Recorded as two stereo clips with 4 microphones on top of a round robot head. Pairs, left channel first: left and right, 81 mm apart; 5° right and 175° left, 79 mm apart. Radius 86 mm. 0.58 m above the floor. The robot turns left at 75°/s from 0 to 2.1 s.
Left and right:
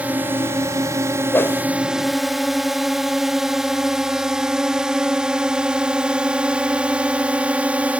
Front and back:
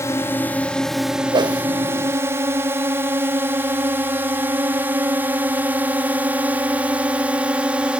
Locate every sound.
0.0 s a drone: 25° right; by 8.0 s 135° right
1.3 s a whoosh: 155° left; by 1.7 s 130° left